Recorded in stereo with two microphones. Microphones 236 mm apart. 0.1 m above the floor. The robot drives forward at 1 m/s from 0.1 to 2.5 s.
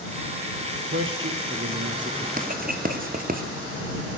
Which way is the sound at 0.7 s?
60° right (ahead or behind).